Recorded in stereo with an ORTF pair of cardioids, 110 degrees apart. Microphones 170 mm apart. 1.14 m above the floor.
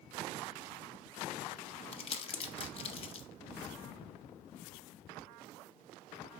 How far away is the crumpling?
About 0.8 m.